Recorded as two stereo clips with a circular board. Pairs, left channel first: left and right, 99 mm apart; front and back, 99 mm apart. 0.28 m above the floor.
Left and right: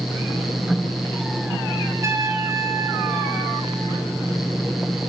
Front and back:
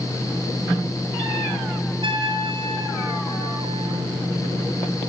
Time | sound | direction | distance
2.0 | a trumpet | 150° right | 4.5 m